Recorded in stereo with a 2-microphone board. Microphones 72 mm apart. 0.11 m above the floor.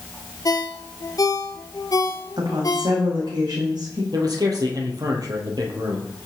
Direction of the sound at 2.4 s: 70° right (ahead or behind).